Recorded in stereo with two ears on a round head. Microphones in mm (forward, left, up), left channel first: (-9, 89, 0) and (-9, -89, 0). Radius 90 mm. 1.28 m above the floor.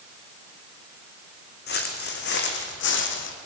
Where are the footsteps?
50° left (ahead or behind), 4.5 m; by 3.4 s 60° left (ahead or behind), 3.5 m.